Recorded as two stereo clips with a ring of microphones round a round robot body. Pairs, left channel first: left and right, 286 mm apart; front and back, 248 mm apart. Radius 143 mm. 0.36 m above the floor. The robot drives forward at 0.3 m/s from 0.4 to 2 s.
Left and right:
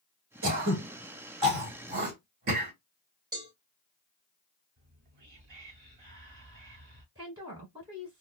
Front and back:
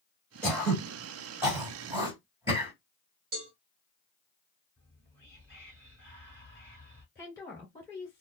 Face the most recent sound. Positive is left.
turn(degrees=-55)